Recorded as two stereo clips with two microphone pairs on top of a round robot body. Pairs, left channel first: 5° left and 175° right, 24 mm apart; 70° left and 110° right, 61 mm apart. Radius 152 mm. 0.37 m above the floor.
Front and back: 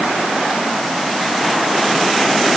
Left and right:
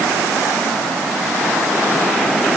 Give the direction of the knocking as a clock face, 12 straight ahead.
No knocking in this recording.